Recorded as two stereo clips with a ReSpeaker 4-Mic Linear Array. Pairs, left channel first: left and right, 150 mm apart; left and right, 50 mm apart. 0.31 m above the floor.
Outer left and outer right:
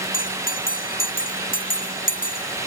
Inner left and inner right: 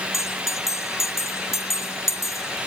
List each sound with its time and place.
0.1 s a bell: 70° left (ahead or behind)